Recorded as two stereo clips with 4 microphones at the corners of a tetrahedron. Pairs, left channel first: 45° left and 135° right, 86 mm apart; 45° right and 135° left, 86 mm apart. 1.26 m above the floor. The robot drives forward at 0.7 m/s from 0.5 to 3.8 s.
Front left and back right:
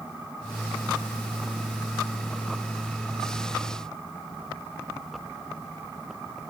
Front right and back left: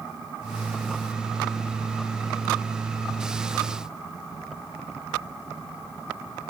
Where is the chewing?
I don't hear chewing.